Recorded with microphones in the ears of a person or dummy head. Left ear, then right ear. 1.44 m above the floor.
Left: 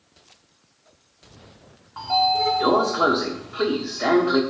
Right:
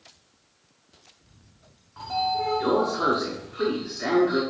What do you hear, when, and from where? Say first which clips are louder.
2.0 s a sliding door: left 6 dB; 25° left (ahead or behind), 1.1 m